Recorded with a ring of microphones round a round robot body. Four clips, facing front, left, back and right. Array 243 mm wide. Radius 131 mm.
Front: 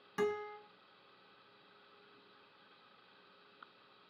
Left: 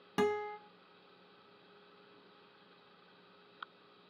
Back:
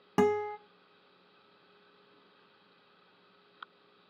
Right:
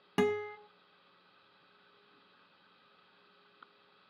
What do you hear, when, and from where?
0.2 s a guitar: 165° right, 1.0 m